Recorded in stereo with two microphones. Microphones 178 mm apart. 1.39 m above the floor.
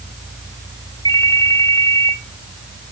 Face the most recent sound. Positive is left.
turn(degrees=25)  # may be behind; listen again after turning